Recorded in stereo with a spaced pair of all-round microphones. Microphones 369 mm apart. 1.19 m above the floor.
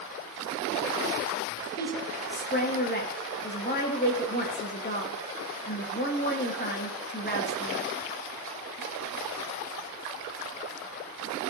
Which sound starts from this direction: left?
A woman speaking, at 1.8 s.